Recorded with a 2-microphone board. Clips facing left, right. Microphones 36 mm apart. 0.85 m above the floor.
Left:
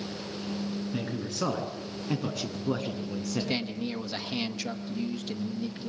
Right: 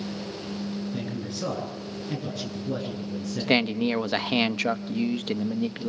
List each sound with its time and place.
0.9 s a man speaking: 90° left, 8.5 m; by 3.6 s 80° left, 7 m
3.4 s a man speaking: 50° right (ahead or behind), 1.0 m